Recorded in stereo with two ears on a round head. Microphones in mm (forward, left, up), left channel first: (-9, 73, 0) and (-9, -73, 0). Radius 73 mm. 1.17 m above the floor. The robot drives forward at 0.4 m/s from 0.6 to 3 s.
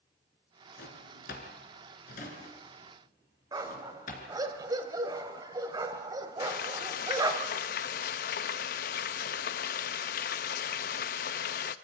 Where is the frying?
60° left (ahead or behind), 0.7 m.